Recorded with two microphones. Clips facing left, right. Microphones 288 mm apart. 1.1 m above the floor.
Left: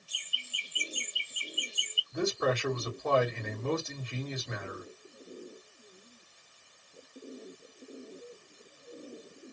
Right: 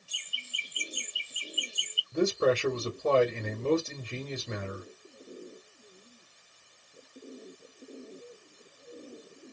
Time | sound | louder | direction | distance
0.1 | laughter | right 1 dB | 30° right (ahead or behind) | 1.6 m
2.1 | a man speaking | right 5 dB | 35° right (ahead or behind) | 1.8 m